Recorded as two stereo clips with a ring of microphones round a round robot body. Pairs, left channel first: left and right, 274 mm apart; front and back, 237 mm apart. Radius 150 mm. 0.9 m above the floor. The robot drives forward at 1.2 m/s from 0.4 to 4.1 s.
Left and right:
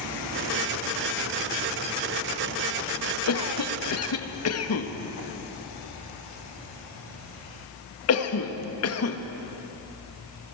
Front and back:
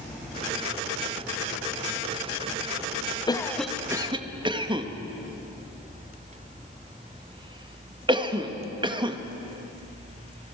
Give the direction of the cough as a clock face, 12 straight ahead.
10 o'clock.